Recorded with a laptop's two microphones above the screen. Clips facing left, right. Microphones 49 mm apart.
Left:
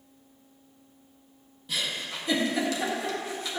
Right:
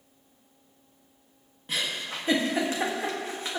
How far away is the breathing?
No breathing in this recording.